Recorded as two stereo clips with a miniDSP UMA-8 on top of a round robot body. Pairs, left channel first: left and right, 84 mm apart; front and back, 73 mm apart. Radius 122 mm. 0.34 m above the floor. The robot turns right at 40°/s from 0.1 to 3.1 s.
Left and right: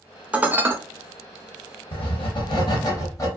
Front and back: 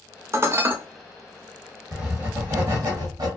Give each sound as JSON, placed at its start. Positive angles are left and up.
{"t": 0.3, "sound": "dishes clattering", "azimuth_deg": -155, "distance_m": 0.7}
{"t": 1.9, "sound": "writing", "azimuth_deg": 100, "distance_m": 1.3}